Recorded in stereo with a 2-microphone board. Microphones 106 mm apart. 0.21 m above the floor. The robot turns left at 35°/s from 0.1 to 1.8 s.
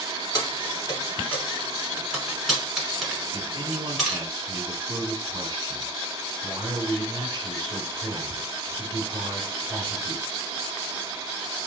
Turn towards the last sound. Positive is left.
turn(degrees=-30)  # may be behind; listen again after turning